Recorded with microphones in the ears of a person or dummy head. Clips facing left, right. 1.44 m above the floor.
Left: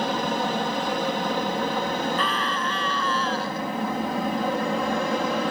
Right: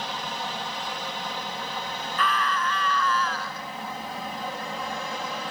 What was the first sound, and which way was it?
An aircraft, 45° left (ahead or behind).